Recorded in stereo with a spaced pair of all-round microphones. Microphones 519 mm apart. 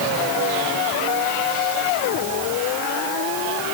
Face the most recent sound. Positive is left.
No sound to turn to.